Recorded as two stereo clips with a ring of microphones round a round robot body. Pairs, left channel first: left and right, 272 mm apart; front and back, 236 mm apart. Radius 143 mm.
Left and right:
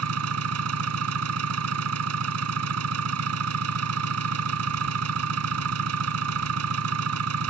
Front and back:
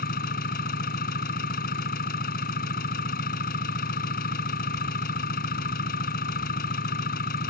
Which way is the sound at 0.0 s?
60° right.